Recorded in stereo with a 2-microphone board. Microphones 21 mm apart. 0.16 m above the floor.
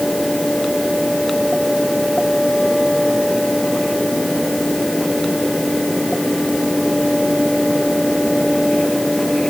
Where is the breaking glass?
I don't hear breaking glass.